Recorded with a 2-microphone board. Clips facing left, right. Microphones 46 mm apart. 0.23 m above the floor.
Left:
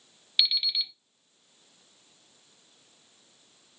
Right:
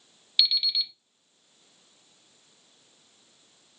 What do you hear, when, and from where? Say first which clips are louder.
0.4 s an alarm clock: right 1 dB; 15° left (ahead or behind), 0.7 m